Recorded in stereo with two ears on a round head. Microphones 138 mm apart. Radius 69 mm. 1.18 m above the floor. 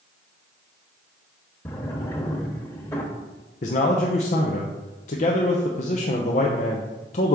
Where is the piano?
I don't hear a piano.